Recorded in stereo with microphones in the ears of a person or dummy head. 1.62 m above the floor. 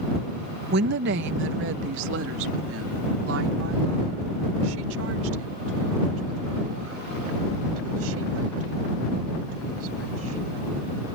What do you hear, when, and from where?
0.7 s a woman speaking: 55° right (ahead or behind); by 10.4 s 80° right